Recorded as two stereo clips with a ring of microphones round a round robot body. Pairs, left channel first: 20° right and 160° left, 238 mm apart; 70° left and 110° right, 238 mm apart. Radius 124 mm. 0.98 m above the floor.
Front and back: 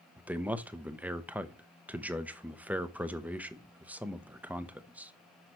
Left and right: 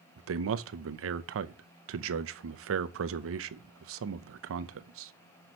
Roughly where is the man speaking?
Behind right.